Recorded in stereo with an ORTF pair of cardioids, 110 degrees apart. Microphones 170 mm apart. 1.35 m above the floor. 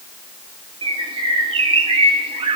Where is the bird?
30° right, 2 m.